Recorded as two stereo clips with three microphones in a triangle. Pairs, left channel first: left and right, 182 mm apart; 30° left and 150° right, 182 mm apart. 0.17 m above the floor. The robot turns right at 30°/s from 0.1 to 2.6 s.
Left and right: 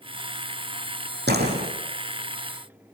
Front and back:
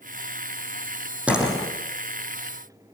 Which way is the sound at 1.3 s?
65° right.